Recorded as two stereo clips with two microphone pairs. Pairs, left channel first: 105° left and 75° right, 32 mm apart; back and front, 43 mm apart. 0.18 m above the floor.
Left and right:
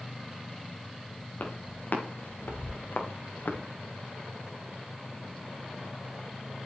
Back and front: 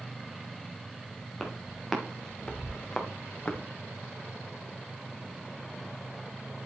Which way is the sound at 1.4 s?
80° left.